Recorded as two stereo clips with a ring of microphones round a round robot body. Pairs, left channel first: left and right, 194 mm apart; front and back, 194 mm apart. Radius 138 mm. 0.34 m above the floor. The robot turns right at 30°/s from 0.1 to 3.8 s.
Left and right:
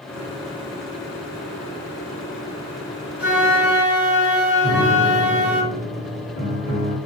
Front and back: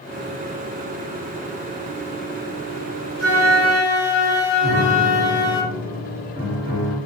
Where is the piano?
160° left, 1.7 m.